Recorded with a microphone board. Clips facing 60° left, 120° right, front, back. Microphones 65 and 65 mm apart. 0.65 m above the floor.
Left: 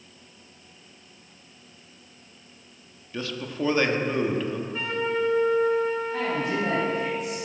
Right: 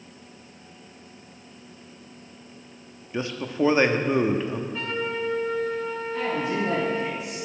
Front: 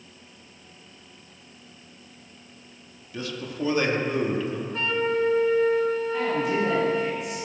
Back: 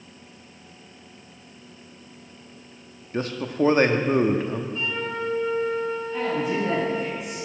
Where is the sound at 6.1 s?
100° left, 4.5 m.